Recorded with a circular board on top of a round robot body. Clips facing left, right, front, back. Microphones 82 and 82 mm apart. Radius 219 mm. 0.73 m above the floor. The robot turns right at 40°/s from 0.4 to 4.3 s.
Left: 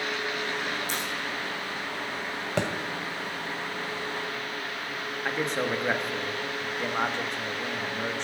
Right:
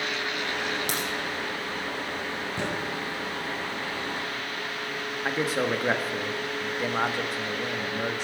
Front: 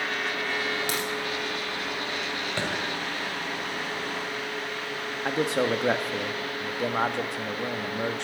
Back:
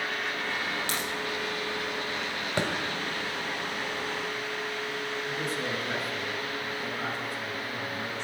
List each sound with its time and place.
0.9 s a crack: 75° right, 5.5 m; by 1.1 s 65° right, 5.5 m
2.6 s a thud: 105° left, 1.9 m; by 2.7 s 110° left, 1.9 m
5.2 s a man speaking: 5° right, 1.5 m